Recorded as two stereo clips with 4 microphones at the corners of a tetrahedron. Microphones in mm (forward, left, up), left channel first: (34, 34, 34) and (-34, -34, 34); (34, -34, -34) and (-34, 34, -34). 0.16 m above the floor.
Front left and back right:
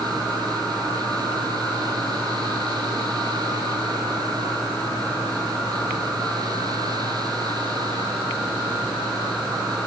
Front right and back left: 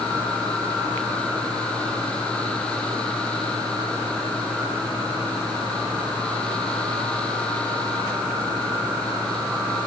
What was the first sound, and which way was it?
Only background noise.